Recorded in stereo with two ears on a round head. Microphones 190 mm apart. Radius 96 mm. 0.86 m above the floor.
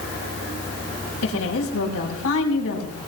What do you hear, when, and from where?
1.2 s a woman speaking: 80° left, 6.5 m